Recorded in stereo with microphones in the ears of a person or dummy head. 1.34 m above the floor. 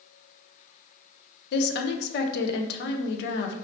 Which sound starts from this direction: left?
A woman speaking, at 1.5 s.